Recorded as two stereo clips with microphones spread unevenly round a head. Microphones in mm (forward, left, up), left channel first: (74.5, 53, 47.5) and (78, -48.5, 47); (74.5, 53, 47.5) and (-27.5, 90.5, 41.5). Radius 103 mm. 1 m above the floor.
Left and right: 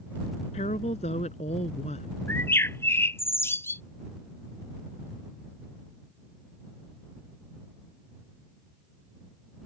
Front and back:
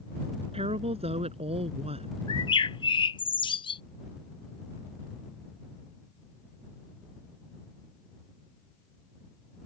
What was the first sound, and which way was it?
A woman speaking, 135° left.